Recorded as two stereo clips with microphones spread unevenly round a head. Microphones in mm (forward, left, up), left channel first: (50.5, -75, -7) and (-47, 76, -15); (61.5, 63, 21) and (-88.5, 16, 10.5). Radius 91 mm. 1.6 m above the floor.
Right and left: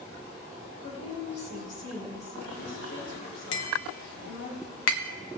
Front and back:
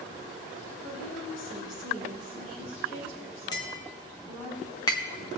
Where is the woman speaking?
5° right, 5 m; by 4.5 s 50° right, 4.5 m.